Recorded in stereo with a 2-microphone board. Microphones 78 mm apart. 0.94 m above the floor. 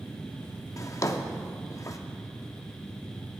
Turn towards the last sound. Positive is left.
turn(degrees=45)  # may be behind; listen again after turning